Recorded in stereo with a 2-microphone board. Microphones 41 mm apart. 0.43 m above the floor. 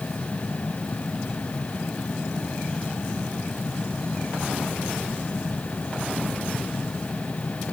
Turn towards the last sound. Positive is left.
No sound to turn to.